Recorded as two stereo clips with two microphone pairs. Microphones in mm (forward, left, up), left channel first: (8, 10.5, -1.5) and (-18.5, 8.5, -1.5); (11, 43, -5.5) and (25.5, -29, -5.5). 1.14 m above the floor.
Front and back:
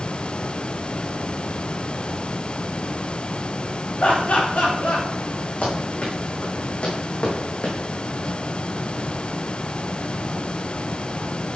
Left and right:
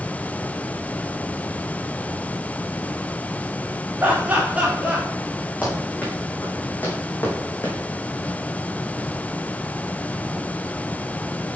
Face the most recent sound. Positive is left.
turn(degrees=45)